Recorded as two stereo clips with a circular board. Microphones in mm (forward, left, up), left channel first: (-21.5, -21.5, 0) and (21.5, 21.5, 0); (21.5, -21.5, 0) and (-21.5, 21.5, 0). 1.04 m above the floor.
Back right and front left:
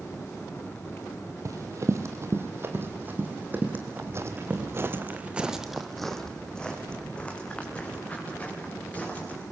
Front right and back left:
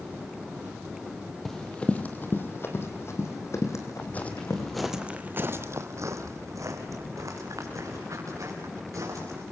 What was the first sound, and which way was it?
Running footsteps, 40° left.